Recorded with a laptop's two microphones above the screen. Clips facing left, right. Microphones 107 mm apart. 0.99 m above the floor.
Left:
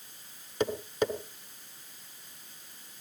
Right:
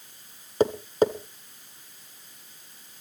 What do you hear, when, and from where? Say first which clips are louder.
0.6 s tapping: right 7 dB; 30° right (ahead or behind), 1.4 m